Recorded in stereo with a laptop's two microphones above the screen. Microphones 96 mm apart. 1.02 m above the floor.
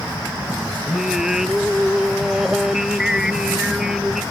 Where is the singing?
5° right (ahead or behind).